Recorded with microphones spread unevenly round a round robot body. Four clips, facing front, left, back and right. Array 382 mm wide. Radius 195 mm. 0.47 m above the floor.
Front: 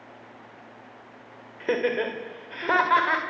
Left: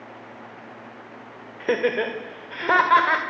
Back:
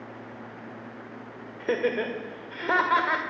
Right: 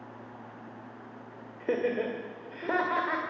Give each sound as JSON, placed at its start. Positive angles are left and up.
{"t": 1.6, "sound": "laughter", "azimuth_deg": 80, "distance_m": 2.0}